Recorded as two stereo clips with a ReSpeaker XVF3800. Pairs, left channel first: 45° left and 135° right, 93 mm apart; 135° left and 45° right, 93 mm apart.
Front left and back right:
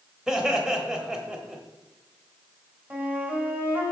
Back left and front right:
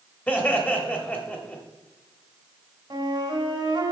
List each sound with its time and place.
0.3 s laughter: 155° left, 1.0 m
2.9 s a flute: 65° right, 2 m